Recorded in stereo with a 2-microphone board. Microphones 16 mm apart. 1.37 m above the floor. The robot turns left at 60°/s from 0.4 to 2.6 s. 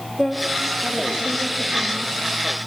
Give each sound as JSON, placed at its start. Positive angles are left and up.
{"t": 0.2, "sound": "a woman speaking", "azimuth_deg": -10, "distance_m": 2.5}